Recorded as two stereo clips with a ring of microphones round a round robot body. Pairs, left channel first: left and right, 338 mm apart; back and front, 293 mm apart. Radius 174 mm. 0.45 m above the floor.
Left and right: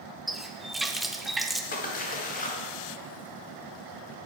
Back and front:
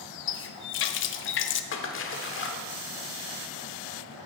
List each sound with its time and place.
0.3 s a running tap: straight behind, 0.5 m
1.7 s a splash: 150° left, 1.2 m